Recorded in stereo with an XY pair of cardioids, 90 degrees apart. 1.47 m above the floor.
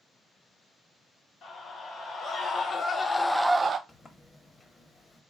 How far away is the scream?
About 2 m.